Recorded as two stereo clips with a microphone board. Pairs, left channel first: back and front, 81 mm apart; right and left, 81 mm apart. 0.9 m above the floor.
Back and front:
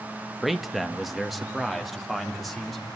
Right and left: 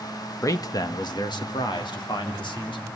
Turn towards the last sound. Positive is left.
turn(degrees=-90)